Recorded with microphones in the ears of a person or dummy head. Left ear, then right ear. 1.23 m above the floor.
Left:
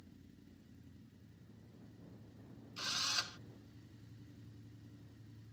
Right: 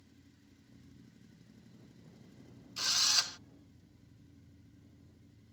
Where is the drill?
20° right (ahead or behind).